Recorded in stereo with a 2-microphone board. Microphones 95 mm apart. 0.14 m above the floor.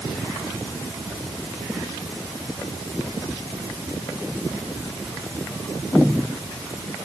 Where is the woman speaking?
I don't hear a woman speaking.